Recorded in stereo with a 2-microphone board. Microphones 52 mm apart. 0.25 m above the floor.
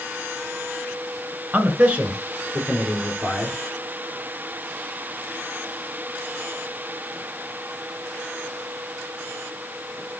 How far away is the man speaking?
About 3 m.